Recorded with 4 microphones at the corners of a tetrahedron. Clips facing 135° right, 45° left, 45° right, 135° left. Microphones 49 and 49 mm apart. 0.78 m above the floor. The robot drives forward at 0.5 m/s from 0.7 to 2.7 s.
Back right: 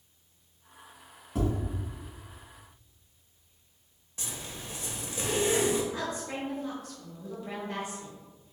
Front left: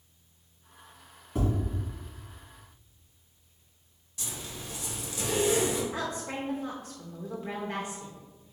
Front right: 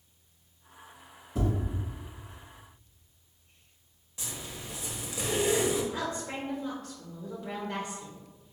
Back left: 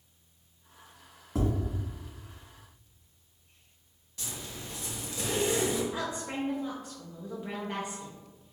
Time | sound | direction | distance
1.4 | tapping | 135° left | 1.8 m
4.2 | a zipper | 110° right | 0.8 m
5.9 | a woman speaking | 80° left | 0.7 m